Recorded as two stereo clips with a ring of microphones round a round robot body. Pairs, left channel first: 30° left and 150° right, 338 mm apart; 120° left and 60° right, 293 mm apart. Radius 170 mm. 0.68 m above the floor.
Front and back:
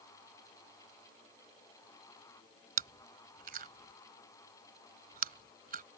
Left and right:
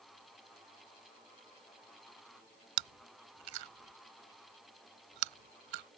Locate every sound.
2.8 s chewing: 85° right